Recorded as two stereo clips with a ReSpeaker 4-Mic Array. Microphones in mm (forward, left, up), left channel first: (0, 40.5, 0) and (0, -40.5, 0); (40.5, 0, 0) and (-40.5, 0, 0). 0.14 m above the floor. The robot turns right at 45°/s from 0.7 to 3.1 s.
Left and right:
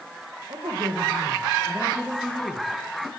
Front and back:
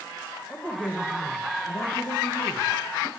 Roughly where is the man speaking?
Right.